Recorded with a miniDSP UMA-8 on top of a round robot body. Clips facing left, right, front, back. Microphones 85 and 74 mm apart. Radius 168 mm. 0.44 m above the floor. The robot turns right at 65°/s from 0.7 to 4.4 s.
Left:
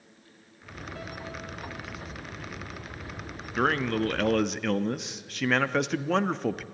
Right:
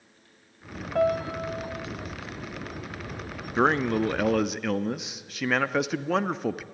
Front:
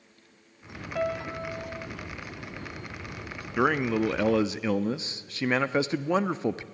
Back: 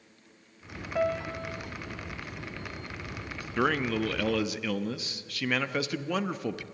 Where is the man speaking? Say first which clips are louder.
Right 3 dB, front 3 dB; 60° right, 0.7 m; by 6.6 s 5° right, 0.7 m.